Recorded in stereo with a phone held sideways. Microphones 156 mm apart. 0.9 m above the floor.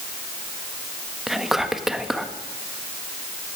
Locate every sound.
1.3 s whispering: centre (ahead or behind), 1.5 m